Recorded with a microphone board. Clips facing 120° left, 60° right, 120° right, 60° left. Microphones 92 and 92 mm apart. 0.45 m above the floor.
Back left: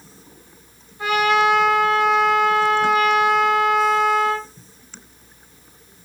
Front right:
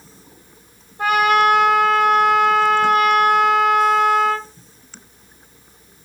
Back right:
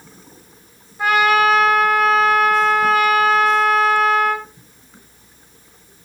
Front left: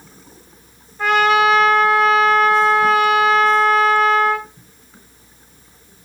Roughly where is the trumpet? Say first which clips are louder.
Front right 2 dB, front left 1 dB; ahead right.